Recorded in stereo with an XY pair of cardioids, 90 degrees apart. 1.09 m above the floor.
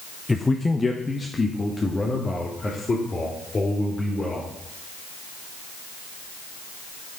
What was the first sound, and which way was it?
A man speaking, 20° left.